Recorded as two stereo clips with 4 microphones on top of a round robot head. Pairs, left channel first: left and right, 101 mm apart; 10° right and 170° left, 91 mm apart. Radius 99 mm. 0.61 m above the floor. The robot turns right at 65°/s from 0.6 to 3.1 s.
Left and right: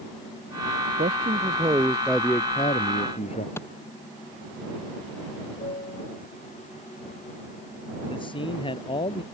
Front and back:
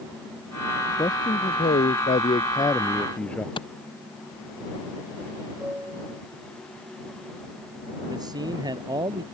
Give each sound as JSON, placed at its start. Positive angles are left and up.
{"t": 1.0, "sound": "a man speaking", "azimuth_deg": -70}
{"t": 3.6, "sound": "a clap", "azimuth_deg": 20}
{"t": 5.6, "sound": "a piano", "azimuth_deg": 95}
{"t": 8.1, "sound": "a man speaking", "azimuth_deg": 125}